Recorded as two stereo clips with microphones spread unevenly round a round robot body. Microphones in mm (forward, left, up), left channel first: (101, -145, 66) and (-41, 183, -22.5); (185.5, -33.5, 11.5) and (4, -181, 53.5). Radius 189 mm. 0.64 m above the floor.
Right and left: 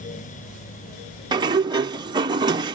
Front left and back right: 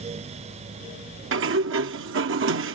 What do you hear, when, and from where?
1.3 s a sliding door: straight behind